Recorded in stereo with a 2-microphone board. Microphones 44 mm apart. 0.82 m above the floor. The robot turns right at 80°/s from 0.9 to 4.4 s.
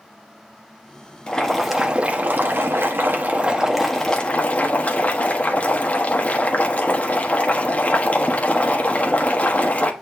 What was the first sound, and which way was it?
Boiling, 150° left.